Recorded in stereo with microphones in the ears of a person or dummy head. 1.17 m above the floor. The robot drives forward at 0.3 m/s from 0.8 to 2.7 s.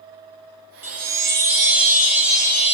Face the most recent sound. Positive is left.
turn(degrees=-10)  # may be behind; listen again after turning